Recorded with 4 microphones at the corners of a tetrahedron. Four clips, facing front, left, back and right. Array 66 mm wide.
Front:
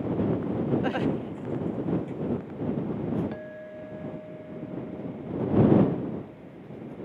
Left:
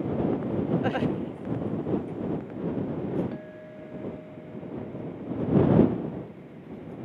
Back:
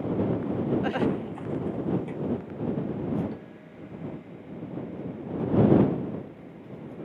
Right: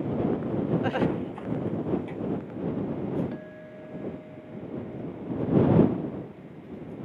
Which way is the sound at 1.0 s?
125° right.